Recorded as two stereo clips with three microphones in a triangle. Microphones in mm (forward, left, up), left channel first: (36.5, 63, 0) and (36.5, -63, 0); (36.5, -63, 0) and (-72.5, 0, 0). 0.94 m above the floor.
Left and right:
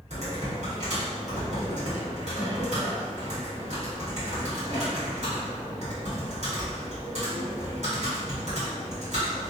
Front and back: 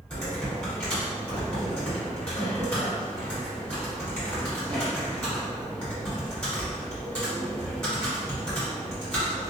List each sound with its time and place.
0.1 s typing on a keyboard: 110° right, 1.4 m